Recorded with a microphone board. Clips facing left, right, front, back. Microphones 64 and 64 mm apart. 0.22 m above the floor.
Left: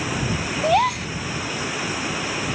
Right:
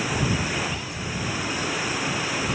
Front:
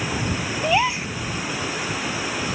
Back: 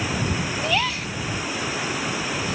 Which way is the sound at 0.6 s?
70° left.